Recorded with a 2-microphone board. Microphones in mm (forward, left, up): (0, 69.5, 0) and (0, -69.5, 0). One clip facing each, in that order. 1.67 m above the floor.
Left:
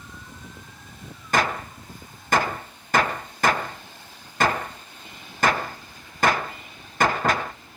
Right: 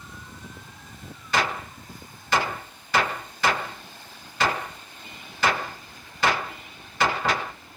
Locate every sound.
1.3 s a gunshot: 50° left (ahead or behind), 0.8 m